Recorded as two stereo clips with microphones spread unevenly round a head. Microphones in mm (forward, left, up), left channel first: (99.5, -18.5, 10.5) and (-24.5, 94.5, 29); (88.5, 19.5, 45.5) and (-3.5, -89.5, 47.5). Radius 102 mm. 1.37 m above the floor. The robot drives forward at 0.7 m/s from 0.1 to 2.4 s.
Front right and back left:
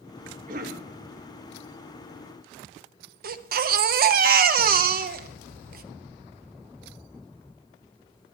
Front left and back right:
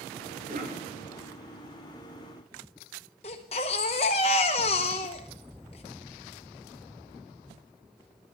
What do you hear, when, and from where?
0.5 s a cough: 170° right, 2.5 m
3.2 s a baby crying: 110° left, 0.8 m